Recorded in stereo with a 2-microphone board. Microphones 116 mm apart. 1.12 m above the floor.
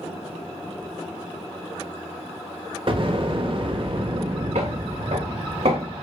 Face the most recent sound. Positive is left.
turn(degrees=-65)  # may be behind; listen again after turning